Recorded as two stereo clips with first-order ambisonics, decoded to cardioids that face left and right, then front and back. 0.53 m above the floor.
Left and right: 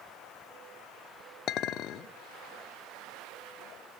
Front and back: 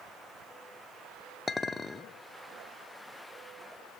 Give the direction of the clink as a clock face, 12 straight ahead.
10 o'clock.